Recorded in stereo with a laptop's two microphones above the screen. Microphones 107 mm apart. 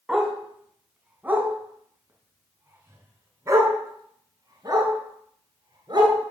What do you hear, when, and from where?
0.1 s a dog barking: 5° right (ahead or behind), 3.5 m; by 6.2 s 40° right (ahead or behind), 5.5 m